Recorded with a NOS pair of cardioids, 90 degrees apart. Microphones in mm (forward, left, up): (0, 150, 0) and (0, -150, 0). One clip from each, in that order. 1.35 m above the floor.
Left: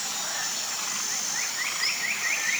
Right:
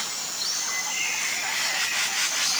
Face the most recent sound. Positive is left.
No sound to turn to.